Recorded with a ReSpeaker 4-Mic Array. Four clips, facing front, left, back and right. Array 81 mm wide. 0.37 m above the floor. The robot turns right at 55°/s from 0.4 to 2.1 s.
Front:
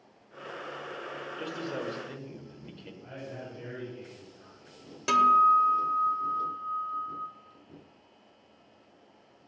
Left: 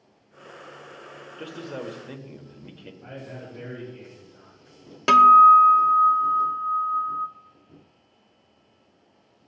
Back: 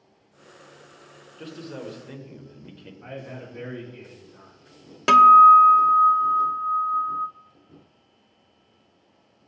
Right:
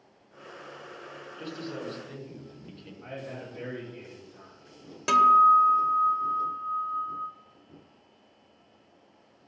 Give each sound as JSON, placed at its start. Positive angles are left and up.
{"t": 1.4, "sound": "a man speaking", "azimuth_deg": 65, "distance_m": 1.6}
{"t": 3.0, "sound": "a man speaking", "azimuth_deg": -165, "distance_m": 4.0}
{"t": 5.1, "sound": "a guitar", "azimuth_deg": 145, "distance_m": 0.6}